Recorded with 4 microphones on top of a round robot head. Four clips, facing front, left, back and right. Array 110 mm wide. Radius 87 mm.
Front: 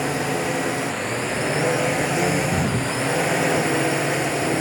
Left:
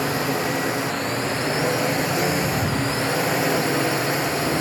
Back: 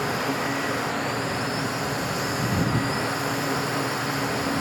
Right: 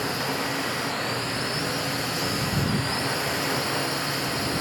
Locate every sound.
0.0 s a drone: 30° left